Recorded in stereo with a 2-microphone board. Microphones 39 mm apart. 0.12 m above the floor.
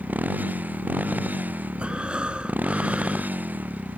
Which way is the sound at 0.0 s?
50° right (ahead or behind).